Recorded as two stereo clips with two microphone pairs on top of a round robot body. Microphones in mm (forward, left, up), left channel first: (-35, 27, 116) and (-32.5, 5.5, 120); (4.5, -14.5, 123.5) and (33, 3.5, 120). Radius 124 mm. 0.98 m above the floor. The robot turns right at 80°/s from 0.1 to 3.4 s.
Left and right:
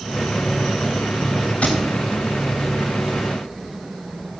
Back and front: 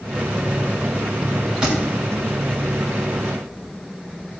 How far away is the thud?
About 3 m.